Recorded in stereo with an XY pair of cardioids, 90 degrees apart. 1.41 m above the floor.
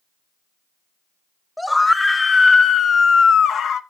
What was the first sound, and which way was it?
A scream, 10° left.